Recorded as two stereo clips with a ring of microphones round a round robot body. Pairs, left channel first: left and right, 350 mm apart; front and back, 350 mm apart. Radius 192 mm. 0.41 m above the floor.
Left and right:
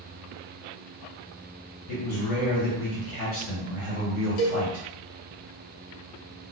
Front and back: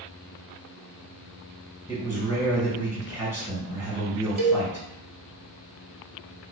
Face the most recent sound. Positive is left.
turn(degrees=115)